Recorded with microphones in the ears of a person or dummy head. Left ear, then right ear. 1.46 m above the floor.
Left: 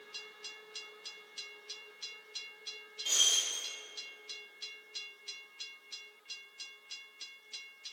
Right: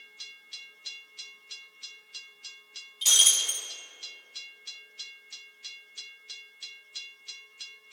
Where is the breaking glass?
60° right (ahead or behind), 3 m.